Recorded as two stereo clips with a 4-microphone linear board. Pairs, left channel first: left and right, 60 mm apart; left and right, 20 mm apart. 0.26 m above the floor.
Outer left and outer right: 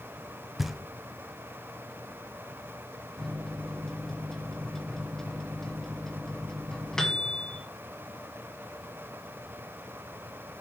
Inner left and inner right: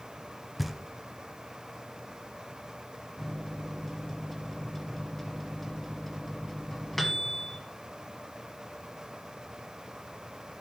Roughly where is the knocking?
Centre.